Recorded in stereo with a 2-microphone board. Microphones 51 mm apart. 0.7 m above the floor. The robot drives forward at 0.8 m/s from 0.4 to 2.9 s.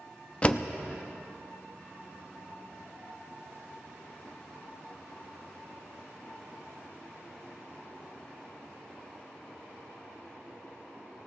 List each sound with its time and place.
0.4 s a door slam: 25° left (ahead or behind), 0.6 m